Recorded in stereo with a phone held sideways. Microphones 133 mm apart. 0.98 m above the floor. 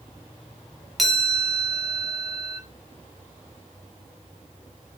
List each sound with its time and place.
1.0 s a chime: centre (ahead or behind), 4.5 m